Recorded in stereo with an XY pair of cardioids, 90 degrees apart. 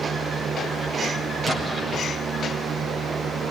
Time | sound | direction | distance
0.0 | a fan | 60° right | 1.3 m
1.5 | an explosion | 30° right | 6.5 m